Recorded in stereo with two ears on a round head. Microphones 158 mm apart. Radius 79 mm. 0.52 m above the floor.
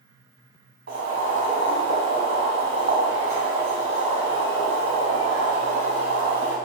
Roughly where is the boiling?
Right.